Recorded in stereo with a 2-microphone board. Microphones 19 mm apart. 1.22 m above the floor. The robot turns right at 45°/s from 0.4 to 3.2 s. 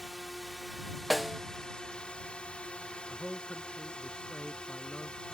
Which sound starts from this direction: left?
A man speaking, at 3.1 s.